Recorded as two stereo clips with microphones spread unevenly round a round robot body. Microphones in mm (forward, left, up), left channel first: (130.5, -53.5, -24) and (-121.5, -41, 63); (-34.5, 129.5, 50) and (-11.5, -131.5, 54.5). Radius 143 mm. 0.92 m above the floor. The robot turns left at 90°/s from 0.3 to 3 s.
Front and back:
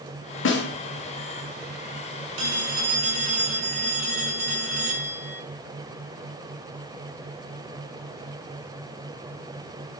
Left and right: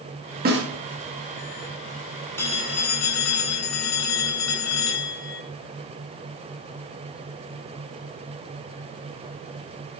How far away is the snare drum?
About 1.9 m.